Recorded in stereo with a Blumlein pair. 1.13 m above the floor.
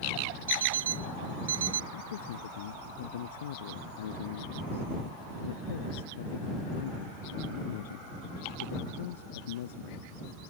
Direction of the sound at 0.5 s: 65° right.